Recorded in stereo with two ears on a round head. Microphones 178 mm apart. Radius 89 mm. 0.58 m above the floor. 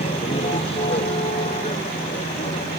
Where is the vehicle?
30° left (ahead or behind).